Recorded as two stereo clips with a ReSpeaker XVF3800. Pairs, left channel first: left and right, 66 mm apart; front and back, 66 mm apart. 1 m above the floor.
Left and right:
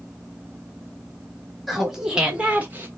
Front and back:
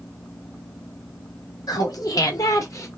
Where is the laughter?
Straight ahead, 1.8 m; by 2.9 s 35° right, 1.3 m.